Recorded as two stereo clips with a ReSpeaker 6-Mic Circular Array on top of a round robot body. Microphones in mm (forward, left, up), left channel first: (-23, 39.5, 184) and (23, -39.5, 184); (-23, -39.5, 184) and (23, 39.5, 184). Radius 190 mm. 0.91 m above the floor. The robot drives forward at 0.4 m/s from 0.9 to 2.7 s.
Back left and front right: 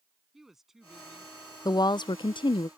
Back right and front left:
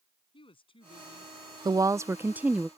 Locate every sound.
0.3 s a woman speaking: 145° right
1.6 s a woman speaking: 85° left; by 2.7 s 140° left